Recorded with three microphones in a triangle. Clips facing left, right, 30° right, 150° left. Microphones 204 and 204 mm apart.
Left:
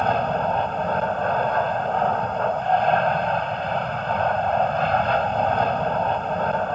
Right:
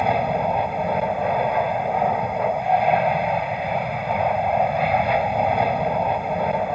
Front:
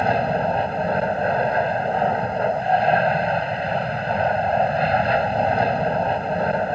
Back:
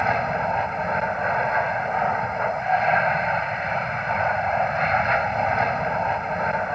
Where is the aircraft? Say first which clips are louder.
Right 1 dB, front 4 dB; 20° right.